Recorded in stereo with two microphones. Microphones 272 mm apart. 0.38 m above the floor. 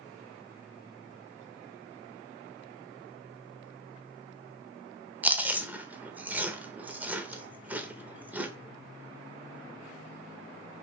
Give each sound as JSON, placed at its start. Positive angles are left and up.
{"t": 5.2, "sound": "chewing", "side_deg": -5, "distance_m": 0.6}